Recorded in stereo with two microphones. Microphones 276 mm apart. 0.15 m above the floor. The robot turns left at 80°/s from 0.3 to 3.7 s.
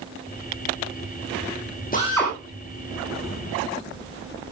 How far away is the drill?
About 9.5 m.